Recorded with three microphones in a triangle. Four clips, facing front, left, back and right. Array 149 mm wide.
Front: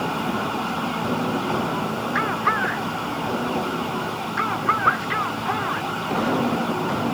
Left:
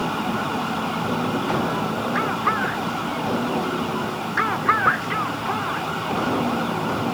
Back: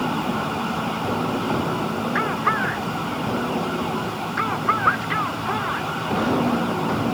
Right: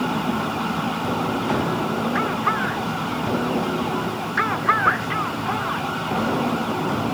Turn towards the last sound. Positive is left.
No sound to turn to.